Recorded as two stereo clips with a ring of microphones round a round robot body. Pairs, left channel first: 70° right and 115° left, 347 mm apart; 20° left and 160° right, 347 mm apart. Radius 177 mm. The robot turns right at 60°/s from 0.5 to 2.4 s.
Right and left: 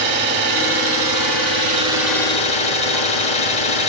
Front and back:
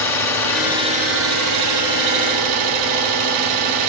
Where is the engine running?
105° left, 2 m; by 3.9 s 140° right, 2 m.